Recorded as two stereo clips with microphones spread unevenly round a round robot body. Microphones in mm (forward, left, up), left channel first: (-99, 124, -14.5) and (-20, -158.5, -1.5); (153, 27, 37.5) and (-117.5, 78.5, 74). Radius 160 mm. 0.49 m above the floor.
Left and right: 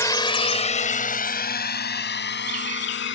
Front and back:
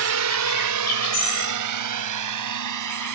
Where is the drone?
175° right; by 3.1 s 155° left.